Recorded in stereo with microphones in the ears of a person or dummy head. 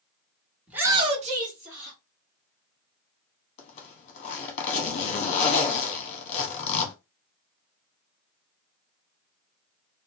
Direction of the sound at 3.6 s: 35° left (ahead or behind).